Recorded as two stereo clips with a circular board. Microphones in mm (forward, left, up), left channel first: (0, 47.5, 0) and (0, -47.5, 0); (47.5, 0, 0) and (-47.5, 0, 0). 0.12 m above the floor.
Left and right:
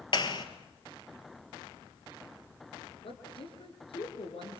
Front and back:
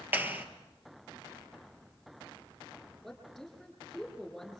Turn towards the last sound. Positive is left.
turn(degrees=90)